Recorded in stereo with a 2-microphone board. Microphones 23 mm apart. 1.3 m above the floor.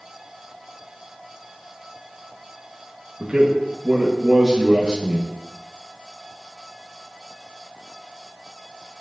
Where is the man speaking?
40° right (ahead or behind), 1.3 m.